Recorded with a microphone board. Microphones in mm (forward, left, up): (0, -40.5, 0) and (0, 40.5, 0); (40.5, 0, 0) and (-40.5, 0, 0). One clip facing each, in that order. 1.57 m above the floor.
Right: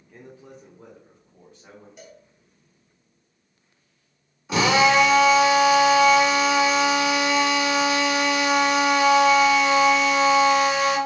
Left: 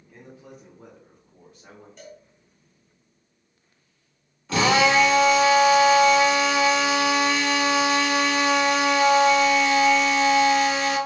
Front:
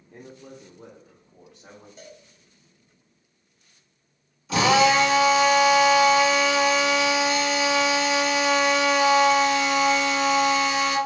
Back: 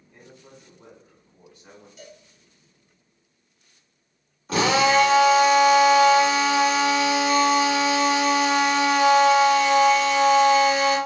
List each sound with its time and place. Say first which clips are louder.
0.1 s a man speaking: right 1 dB, front 6 dB; 5° right, 0.6 m; by 1.9 s 10° left, 1.5 m
2.0 s a cowbell: left 2 dB, back 1 dB; 15° right, 0.9 m
4.5 s a drill: right 1 dB, front 1 dB; 165° right, 1.3 m